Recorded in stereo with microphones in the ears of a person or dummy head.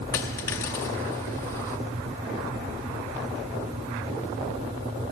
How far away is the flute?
I don't hear a flute.